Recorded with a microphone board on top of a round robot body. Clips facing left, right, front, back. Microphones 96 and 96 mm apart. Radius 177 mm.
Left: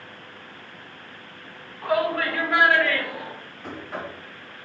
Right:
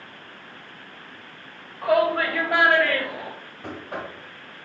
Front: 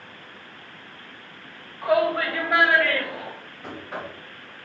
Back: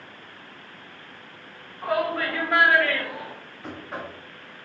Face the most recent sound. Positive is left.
turn(degrees=-85)